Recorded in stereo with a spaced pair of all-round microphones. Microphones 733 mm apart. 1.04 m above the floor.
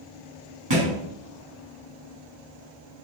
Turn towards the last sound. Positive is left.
turn(degrees=-35)  # may be behind; listen again after turning